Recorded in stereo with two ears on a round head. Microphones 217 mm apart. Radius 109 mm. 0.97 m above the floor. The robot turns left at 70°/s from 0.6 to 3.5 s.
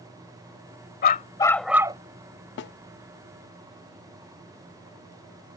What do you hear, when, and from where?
1.0 s a dog barking: 45° left; by 2.0 s 25° right
2.6 s a snare drum: 50° left (ahead or behind); by 2.7 s 40° left (ahead or behind)